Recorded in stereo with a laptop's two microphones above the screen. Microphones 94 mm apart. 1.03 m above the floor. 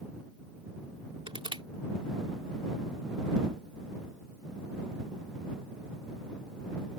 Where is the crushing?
70° right (ahead or behind).